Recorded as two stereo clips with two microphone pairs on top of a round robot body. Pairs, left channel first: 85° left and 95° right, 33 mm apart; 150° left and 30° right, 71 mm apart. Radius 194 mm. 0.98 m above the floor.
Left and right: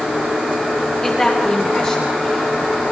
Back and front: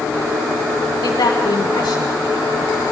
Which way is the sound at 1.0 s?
155° left.